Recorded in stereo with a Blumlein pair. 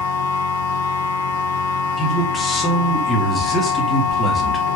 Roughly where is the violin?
I don't hear a violin.